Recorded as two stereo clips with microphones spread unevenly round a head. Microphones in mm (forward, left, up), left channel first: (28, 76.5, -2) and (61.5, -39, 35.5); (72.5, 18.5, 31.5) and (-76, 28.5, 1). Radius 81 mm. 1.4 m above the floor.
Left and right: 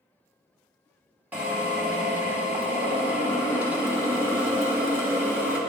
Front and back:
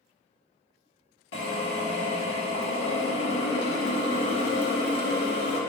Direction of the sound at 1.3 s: Straight ahead.